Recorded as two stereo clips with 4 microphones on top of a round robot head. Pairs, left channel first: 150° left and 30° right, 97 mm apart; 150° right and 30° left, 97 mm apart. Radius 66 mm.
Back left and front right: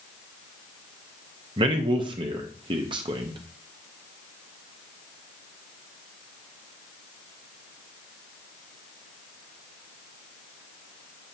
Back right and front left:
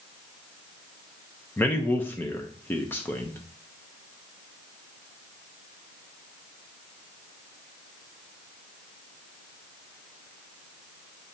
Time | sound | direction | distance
1.6 | a man speaking | 75° right | 0.8 m